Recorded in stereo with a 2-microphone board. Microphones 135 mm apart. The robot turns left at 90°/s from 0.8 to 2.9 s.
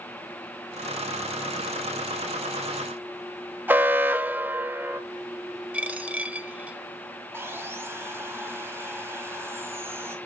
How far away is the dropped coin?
About 0.9 m.